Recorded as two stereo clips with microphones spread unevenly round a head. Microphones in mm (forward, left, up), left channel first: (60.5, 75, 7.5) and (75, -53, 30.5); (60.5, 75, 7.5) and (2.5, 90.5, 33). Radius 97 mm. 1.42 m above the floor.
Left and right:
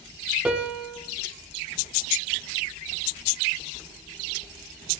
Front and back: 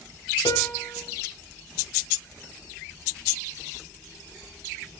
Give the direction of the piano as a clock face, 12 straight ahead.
12 o'clock.